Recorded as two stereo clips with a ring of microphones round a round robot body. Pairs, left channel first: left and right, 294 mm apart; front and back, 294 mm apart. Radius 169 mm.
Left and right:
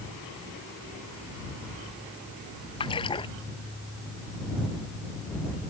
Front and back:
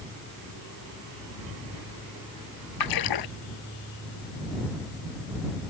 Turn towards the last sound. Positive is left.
turn(degrees=15)